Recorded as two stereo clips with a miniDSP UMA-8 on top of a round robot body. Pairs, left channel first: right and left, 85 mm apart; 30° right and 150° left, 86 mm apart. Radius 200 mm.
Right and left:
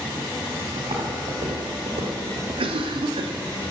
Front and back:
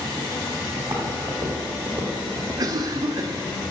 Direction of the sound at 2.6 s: 100° left.